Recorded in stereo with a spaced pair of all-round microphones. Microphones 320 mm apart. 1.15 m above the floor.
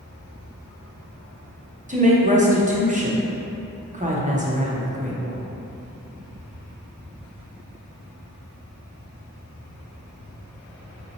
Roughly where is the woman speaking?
Right.